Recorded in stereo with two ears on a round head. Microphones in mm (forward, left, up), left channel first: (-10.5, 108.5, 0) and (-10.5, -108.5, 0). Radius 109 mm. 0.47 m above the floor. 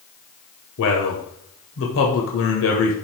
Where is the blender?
No blender in this recording.